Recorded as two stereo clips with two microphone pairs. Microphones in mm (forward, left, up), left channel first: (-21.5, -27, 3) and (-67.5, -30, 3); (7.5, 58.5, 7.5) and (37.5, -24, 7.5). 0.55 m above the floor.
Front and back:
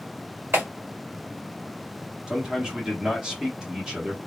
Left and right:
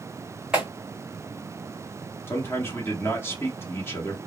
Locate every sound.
0.5 s a clap: 150° right, 1.6 m
2.3 s a man speaking: 135° left, 1.0 m